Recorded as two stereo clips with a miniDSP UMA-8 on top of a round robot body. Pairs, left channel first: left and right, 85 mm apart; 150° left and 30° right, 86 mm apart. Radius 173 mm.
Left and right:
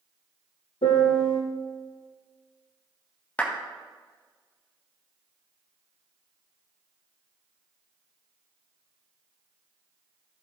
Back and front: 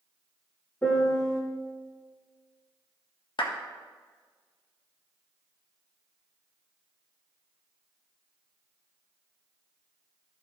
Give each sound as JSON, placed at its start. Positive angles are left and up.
{"t": 0.8, "sound": "a piano", "azimuth_deg": 80, "distance_m": 0.8}
{"t": 3.4, "sound": "a clap", "azimuth_deg": 160, "distance_m": 1.6}